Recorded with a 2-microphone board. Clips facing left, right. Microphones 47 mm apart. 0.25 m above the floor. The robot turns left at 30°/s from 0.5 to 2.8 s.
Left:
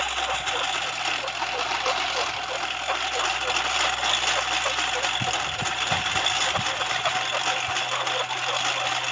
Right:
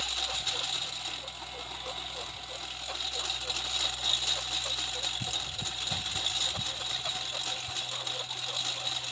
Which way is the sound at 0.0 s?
130° left.